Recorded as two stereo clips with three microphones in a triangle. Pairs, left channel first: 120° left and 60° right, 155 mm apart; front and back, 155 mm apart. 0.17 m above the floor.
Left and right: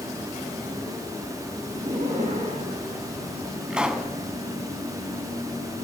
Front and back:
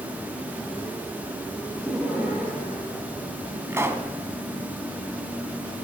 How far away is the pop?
About 1.1 m.